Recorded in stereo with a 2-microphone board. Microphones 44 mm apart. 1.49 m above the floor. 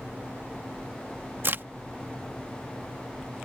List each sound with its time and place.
1.4 s a crack: 50° right (ahead or behind)